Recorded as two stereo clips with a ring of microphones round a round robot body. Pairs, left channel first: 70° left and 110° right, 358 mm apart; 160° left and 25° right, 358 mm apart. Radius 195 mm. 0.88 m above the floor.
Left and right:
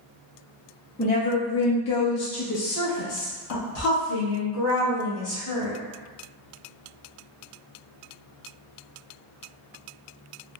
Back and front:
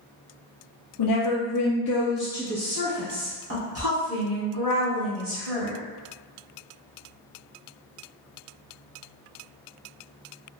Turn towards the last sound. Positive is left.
turn(degrees=20)